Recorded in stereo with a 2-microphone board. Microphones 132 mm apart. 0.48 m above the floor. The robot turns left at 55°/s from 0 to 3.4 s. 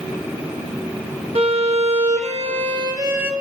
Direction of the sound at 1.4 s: 60° right.